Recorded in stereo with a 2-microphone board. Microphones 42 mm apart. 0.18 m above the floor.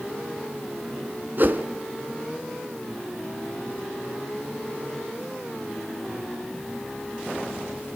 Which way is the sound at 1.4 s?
50° right (ahead or behind).